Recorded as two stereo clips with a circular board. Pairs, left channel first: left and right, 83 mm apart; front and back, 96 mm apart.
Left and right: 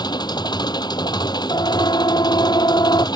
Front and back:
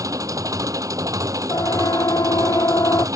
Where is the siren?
55° left.